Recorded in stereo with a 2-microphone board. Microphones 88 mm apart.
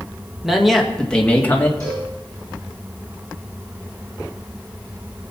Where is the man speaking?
5° right (ahead or behind), 2 m; by 1.7 s 25° left (ahead or behind), 1.9 m.